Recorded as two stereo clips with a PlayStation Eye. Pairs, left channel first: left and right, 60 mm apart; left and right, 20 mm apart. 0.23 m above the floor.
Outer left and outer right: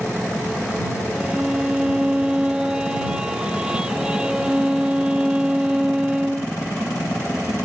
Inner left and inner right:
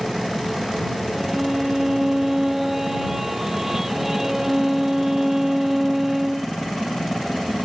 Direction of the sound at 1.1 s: 15° right (ahead or behind).